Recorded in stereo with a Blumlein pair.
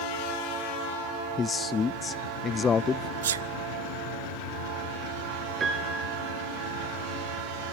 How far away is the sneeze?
About 0.6 m.